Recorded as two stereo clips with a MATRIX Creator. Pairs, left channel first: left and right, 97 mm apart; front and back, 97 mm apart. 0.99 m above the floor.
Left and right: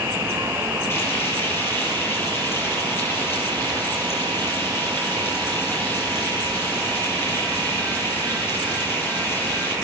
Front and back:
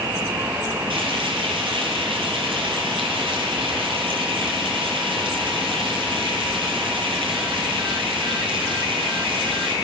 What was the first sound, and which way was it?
Frying, 155° left.